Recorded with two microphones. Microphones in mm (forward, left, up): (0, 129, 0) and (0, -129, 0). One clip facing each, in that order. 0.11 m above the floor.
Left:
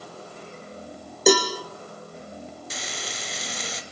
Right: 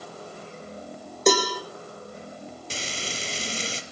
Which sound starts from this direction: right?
Frying, at 2.7 s.